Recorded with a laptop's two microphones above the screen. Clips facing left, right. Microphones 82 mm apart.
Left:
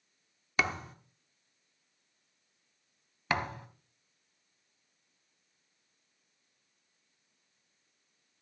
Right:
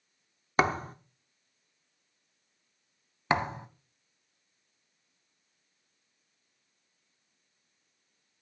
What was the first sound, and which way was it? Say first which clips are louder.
A thud: right 6 dB; 35° right (ahead or behind).